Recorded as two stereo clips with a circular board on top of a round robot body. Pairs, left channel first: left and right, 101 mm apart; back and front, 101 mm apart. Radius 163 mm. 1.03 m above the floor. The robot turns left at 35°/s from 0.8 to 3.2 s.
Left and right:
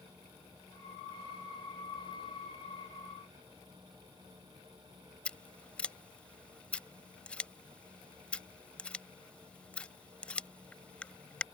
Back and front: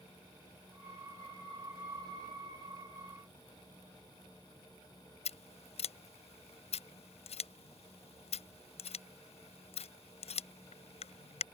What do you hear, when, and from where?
5.2 s scissors: 170° left